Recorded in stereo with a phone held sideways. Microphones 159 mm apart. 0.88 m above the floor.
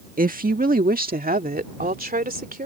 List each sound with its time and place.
0.2 s a woman speaking: 60° right (ahead or behind); by 2.7 s 65° right (ahead or behind)